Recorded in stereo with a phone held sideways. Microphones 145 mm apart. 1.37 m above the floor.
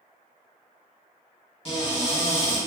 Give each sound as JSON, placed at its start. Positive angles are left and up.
{"t": 1.6, "sound": "a cupboard door", "side_deg": 40, "distance_m": 2.0}